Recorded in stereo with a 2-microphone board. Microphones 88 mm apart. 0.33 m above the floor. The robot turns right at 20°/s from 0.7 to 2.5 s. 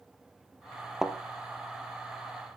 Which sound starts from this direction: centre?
A thud, at 1.0 s.